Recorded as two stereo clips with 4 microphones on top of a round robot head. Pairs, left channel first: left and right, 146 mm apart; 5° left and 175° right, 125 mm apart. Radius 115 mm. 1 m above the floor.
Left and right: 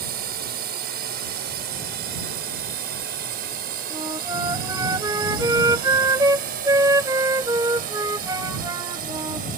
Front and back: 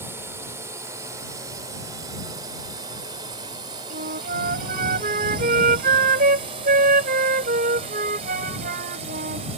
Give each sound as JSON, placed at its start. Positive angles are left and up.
{"t": 0.0, "sound": "a drone", "azimuth_deg": -100}
{"t": 3.9, "sound": "a flute", "azimuth_deg": -165}